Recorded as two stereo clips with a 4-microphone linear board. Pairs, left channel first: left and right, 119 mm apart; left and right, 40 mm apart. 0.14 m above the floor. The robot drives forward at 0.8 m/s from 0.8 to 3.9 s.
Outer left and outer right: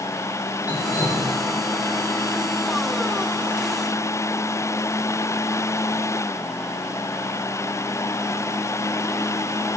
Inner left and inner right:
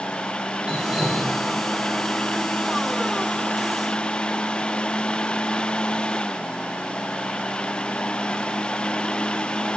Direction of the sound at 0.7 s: 15° right (ahead or behind).